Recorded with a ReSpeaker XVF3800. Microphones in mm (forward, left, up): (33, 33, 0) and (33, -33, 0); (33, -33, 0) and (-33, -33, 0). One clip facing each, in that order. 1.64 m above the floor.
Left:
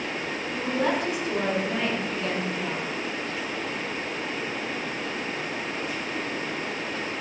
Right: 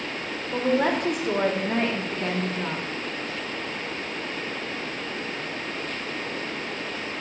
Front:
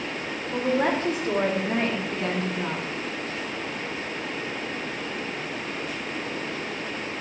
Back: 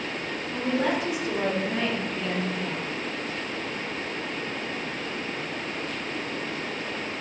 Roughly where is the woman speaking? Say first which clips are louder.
Right 4 dB, front 2 dB; ahead right.